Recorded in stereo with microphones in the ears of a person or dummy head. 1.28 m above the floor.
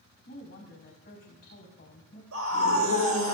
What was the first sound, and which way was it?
A woman speaking, 40° left (ahead or behind).